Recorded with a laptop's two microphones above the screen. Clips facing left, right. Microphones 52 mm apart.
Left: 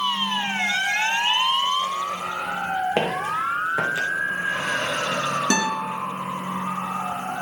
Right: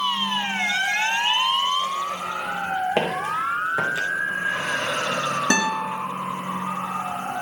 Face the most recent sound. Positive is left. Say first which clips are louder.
# right 1 dB
turn(degrees=-30)  # may be behind; listen again after turning